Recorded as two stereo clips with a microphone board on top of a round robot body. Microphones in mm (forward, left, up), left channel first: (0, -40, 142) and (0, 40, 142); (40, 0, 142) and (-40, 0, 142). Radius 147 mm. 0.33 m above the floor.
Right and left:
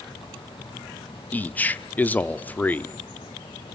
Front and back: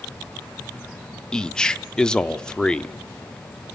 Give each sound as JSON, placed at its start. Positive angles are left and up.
{"t": 1.3, "sound": "a man speaking", "azimuth_deg": -65, "distance_m": 1.1}